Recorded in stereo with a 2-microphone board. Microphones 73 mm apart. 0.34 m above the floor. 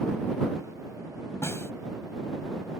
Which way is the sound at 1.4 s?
40° left (ahead or behind).